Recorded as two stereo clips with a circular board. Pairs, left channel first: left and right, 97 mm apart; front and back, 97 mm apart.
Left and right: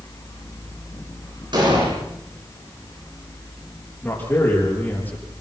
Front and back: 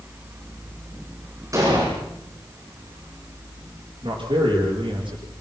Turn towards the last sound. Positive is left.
turn(degrees=160)